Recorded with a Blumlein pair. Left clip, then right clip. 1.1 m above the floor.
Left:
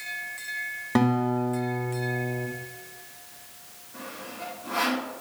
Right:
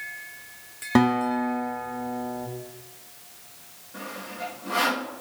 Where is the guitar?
15° right, 0.9 m.